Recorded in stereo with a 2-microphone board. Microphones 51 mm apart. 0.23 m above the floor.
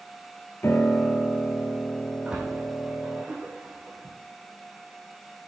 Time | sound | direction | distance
0.6 | a piano | 55° left (ahead or behind) | 1.3 m
2.2 | a splash | 25° right (ahead or behind) | 3.5 m